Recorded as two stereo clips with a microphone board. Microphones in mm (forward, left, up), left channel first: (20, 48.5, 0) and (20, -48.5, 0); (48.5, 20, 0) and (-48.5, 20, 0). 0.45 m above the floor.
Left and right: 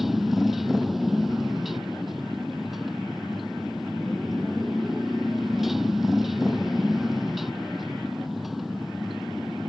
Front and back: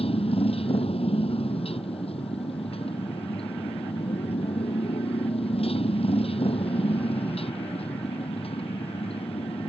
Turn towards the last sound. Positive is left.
turn(degrees=0)